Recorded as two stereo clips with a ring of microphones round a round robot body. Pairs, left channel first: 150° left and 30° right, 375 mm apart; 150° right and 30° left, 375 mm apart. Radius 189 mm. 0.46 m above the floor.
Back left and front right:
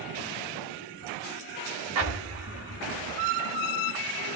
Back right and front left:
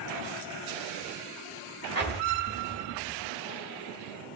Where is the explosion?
75° right, 3.5 m.